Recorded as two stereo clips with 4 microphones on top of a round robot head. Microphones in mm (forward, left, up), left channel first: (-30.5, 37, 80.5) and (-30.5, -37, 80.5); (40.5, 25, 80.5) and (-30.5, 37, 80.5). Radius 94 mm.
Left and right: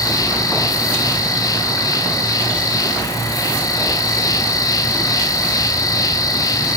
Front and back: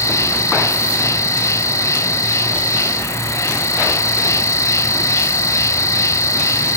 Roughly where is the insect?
Ahead left.